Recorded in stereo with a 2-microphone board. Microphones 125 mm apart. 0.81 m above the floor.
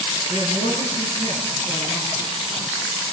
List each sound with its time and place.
0.3 s a man speaking: 70° right (ahead or behind), 10 m